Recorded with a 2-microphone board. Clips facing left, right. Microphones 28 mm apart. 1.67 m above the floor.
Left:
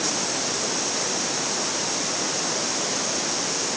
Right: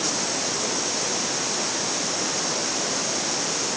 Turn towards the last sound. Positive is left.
No sound to turn to.